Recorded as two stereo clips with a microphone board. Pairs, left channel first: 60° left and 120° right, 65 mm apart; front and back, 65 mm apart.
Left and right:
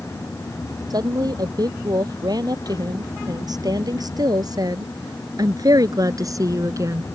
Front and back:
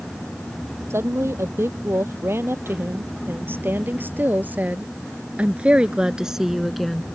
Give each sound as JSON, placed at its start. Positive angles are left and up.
{"t": 0.9, "sound": "a woman speaking", "azimuth_deg": -130}